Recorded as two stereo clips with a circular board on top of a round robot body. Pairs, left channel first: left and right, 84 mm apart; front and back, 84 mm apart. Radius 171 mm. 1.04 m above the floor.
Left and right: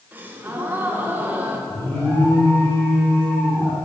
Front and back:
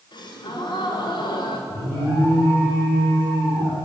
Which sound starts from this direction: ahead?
An alarm, at 1.7 s.